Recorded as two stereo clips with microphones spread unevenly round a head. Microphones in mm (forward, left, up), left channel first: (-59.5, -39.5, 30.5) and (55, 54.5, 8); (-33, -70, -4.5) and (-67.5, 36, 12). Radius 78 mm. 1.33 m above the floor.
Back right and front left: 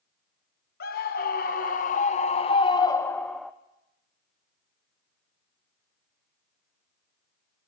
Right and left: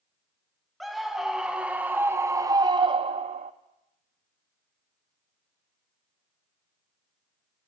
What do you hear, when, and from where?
0.8 s a scream: 160° right, 1.5 m; by 3.5 s 125° left, 0.7 m